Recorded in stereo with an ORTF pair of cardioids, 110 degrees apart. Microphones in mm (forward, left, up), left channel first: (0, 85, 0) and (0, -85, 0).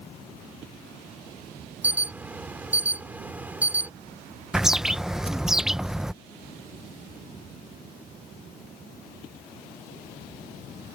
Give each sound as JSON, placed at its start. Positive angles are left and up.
{"t": 1.8, "sound": "an alarm", "azimuth_deg": -10}
{"t": 4.5, "sound": "a bird", "azimuth_deg": -5}